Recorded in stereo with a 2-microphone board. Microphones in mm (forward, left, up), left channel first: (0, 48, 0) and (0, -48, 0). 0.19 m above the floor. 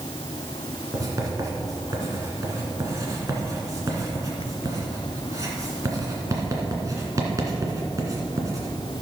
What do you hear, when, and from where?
0.9 s writing: 35° right (ahead or behind), 2 m